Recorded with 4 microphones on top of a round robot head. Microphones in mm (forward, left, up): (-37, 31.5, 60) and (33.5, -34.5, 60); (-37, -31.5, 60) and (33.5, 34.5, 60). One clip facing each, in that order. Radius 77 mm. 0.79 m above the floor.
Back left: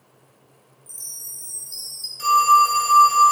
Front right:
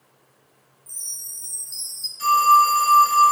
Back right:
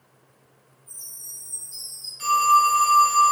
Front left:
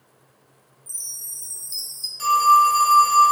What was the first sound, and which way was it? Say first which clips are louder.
A chime: back left 2 dB, front left 2 dB; 45° left.